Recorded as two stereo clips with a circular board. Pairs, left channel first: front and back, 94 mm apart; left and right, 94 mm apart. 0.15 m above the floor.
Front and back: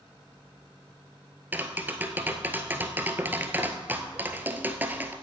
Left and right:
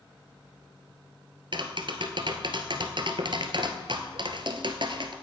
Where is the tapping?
115° right, 1.1 m.